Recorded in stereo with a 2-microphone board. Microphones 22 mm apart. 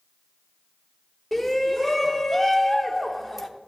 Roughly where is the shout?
Centre.